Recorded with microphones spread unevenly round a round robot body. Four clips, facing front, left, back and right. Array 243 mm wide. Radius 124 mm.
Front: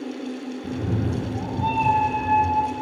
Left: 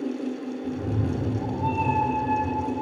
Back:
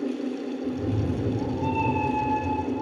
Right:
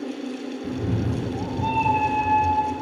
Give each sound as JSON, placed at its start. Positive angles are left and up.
{"t": 0.6, "sound": "a cat meowing", "azimuth_deg": -30, "distance_m": 5.0}